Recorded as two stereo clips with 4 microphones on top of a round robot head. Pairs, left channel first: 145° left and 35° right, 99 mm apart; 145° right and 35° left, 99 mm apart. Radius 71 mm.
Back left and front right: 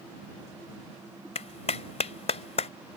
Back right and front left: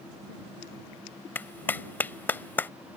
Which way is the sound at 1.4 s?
140° left.